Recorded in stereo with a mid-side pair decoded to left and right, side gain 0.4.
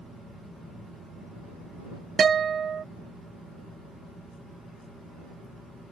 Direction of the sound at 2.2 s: 50° right.